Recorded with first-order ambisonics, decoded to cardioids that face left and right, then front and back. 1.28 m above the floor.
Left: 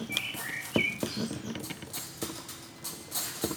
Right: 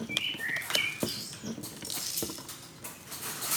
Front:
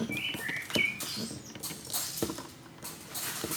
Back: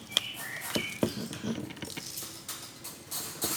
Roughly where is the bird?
Right.